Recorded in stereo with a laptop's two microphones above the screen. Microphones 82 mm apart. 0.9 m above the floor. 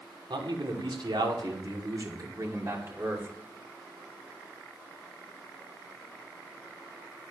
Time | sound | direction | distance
0.3 | a man speaking | 80° right | 3 m